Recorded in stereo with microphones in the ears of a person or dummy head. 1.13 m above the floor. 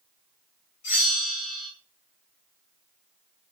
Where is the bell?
50° left (ahead or behind), 1.6 m.